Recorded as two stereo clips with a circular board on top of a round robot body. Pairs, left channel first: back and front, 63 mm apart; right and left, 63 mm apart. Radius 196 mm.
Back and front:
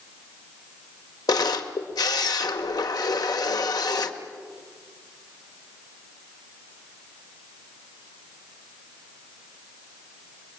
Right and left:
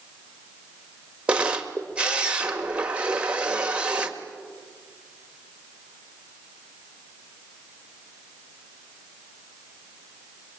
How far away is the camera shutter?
About 1.6 m.